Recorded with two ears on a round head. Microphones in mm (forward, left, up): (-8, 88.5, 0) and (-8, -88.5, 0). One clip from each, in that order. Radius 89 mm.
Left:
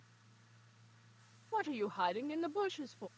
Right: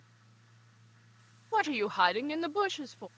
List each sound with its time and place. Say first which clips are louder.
1.5 s a woman speaking: right 8 dB; 60° right (ahead or behind); by 3.1 s 15° right (ahead or behind)